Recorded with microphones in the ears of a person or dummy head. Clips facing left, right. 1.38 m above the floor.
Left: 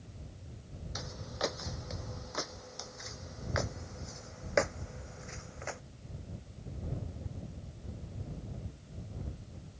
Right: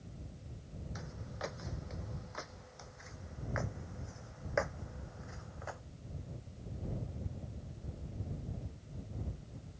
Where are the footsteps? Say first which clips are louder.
Left 8 dB; 60° left (ahead or behind); by 5.8 s 45° left (ahead or behind).